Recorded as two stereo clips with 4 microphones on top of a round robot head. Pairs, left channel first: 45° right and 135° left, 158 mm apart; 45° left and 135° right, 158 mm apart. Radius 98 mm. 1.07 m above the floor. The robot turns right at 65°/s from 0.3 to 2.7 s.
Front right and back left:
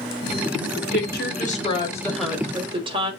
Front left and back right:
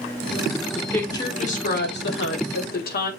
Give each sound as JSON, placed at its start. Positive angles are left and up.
{"t": 0.8, "sound": "a woman speaking", "azimuth_deg": -50, "distance_m": 5.0}